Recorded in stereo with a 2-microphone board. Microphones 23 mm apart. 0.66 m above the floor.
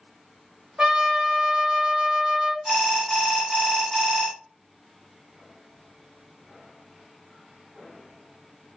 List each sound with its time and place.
0.8 s a trumpet: 35° right (ahead or behind), 1.3 m
2.6 s an alarm: 15° right (ahead or behind), 2 m